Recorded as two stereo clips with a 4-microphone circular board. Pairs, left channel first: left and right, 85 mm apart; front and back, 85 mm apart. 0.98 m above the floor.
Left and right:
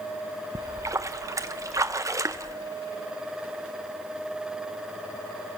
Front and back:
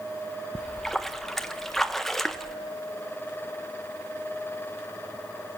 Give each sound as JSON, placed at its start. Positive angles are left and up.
{"t": 0.6, "sound": "a splash", "azimuth_deg": -85, "distance_m": 0.9}